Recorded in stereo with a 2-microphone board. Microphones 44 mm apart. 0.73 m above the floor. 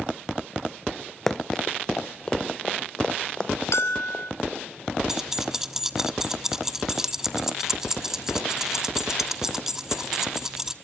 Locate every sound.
1.3 s running footsteps: 5° left (ahead or behind), 0.7 m; by 4.6 s 20° left (ahead or behind), 4 m
3.7 s a bell: 75° left (ahead or behind), 3 m
5.1 s keys jangling: 10° right (ahead or behind), 1.1 m